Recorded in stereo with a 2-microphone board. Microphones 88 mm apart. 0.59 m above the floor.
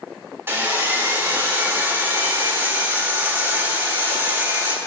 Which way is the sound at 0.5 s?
25° right (ahead or behind).